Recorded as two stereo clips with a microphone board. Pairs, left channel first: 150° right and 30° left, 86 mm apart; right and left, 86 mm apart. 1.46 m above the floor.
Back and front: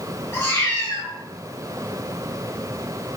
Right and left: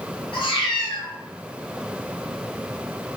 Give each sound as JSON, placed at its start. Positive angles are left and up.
{"t": 0.3, "sound": "a cat meowing", "azimuth_deg": -90, "distance_m": 1.4}